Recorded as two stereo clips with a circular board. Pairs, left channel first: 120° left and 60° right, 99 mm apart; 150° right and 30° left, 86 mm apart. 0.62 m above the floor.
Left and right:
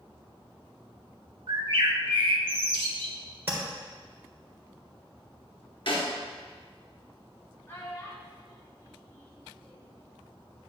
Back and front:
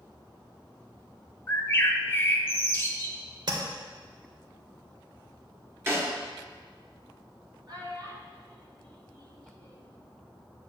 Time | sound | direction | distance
1.5 | a bird | 90° right | 0.8 m
3.5 | tapping | 5° left | 1.6 m
5.9 | a snare drum | 90° left | 1.7 m
7.7 | a child speaking | 55° left | 1.9 m